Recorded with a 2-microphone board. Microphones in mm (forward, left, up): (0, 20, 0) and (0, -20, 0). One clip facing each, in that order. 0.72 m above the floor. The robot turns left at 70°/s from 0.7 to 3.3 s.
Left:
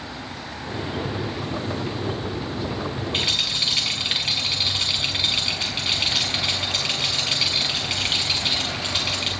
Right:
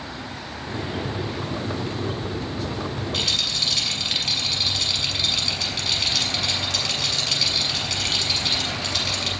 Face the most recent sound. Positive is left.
turn(degrees=20)  # may be behind; listen again after turning